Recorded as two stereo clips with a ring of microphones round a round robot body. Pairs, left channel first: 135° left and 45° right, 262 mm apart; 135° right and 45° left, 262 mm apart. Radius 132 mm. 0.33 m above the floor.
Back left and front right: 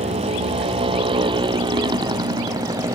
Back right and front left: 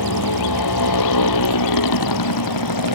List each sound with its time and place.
0.0 s a motorcycle: 115° right; by 3.0 s 125° right